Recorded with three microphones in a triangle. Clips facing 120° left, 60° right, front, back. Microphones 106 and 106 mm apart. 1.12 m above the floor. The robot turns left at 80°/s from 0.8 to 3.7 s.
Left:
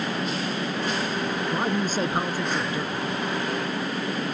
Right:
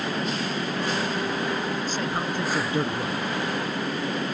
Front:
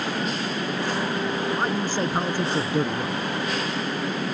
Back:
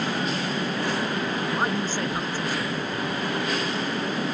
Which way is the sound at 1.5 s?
105° left.